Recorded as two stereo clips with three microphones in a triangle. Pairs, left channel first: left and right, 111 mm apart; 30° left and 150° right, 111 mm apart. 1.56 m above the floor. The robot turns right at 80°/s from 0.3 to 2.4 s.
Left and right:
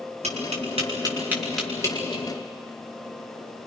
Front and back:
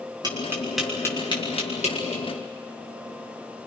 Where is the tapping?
100° right, 6.5 m; by 2.2 s 55° left, 6.5 m.